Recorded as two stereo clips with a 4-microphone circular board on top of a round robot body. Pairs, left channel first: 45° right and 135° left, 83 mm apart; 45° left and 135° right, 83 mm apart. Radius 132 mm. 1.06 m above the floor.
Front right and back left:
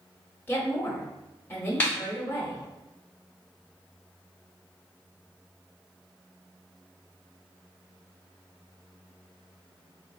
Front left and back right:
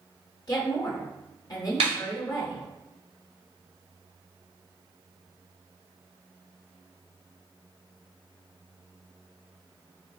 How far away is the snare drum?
About 0.6 m.